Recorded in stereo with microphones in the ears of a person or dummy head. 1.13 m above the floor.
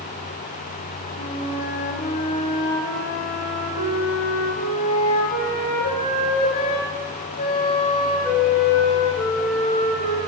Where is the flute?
30° left (ahead or behind), 1.3 m.